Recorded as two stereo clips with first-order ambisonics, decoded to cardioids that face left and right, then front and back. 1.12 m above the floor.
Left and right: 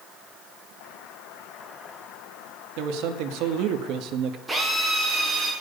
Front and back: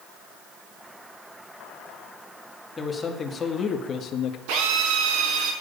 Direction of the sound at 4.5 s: 165° right.